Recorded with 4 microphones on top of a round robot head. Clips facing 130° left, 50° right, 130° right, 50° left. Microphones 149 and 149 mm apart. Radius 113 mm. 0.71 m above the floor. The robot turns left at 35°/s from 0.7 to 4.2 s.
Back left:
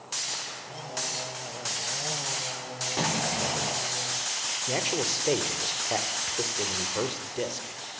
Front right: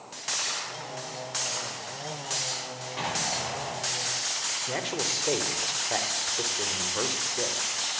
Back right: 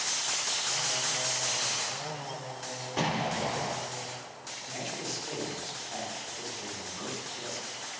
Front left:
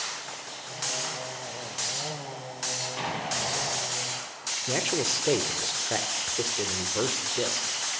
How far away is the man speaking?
About 3 m.